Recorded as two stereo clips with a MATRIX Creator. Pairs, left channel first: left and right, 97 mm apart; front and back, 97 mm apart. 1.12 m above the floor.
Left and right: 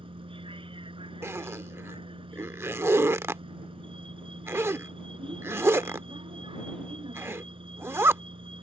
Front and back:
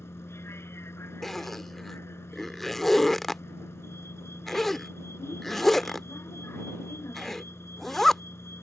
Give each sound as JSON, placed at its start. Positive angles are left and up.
{"t": 0.0, "sound": "a vehicle", "azimuth_deg": -65}
{"t": 1.2, "sound": "a zipper", "azimuth_deg": -85}